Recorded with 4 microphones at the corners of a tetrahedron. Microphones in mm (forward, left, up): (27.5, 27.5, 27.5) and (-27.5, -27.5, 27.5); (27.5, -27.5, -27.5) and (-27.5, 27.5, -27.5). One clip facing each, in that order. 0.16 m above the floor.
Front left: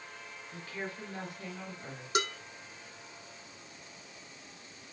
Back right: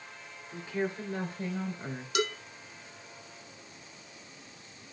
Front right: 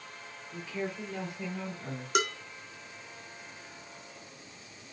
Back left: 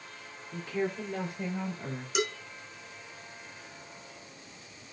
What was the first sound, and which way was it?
A woman speaking, 155° left.